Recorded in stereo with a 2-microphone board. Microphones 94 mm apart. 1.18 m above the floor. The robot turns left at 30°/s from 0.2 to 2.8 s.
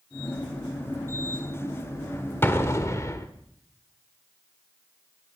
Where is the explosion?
25° left (ahead or behind), 1.3 m; by 3.3 s 35° left (ahead or behind), 1.3 m.